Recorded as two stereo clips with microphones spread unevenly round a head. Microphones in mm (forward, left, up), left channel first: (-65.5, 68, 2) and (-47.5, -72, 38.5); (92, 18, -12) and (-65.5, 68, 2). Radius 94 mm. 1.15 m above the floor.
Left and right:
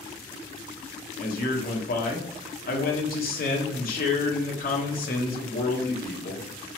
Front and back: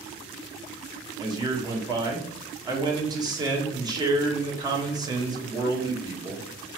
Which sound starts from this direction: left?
A man speaking, at 1.2 s.